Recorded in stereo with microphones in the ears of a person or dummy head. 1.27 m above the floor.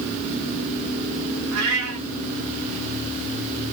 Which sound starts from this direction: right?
A cat meowing, at 1.5 s.